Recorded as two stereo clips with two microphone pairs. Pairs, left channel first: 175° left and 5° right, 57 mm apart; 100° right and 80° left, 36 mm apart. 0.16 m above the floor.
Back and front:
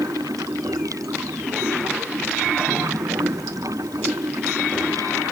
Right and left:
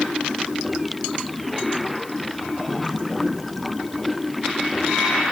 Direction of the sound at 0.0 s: 15° right.